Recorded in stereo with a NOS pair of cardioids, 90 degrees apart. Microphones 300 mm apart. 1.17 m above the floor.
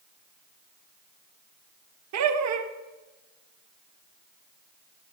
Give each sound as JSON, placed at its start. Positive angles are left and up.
{"t": 2.1, "sound": "laughter", "azimuth_deg": -65, "distance_m": 1.4}